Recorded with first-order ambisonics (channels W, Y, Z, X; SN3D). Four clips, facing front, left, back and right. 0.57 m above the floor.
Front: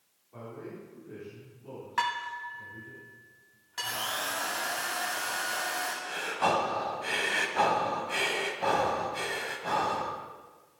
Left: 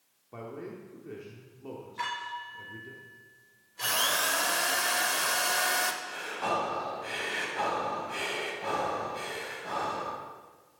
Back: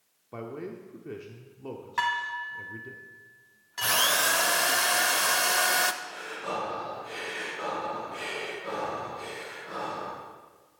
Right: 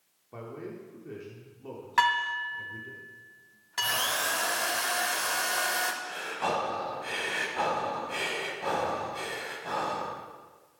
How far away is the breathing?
About 1.7 m.